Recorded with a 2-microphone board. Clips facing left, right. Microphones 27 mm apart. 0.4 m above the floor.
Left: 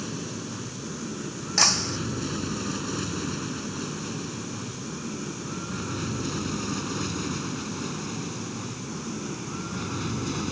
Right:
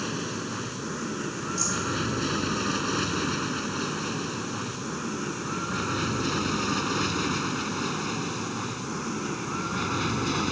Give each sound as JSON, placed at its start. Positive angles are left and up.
{"t": 0.0, "sound": "an aircraft", "side_deg": -25}
{"t": 1.6, "sound": "breaking glass", "side_deg": 75}